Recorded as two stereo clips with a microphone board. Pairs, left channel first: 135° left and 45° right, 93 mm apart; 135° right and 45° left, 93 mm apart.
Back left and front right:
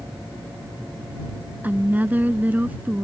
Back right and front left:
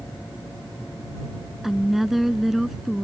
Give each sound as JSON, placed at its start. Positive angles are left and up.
{"t": 1.6, "sound": "a woman speaking", "azimuth_deg": -35}